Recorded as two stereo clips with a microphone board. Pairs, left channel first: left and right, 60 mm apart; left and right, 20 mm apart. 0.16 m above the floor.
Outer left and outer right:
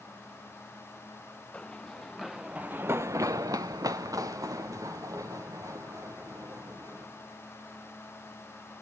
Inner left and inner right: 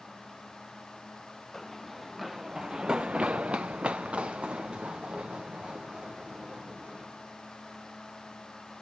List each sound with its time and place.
1.5 s running footsteps: 15° left (ahead or behind), 1.5 m; by 7.1 s 55° right (ahead or behind), 4 m